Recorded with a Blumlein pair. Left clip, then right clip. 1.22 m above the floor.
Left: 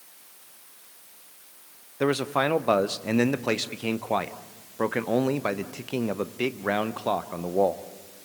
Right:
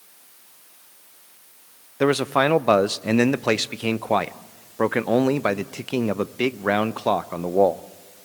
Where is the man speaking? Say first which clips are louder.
Right 5 dB; 15° right, 0.7 m.